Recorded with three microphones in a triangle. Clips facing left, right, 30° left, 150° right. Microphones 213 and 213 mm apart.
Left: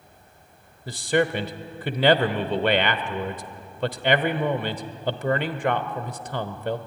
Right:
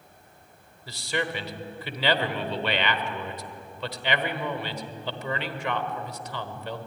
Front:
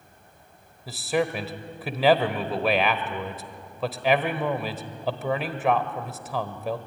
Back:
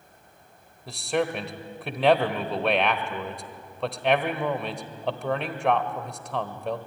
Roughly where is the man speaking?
Behind left.